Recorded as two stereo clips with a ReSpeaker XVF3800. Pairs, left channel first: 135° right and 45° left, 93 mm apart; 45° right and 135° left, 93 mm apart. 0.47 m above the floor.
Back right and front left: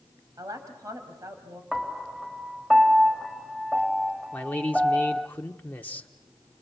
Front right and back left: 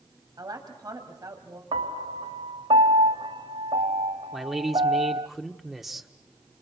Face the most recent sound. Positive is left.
turn(degrees=-145)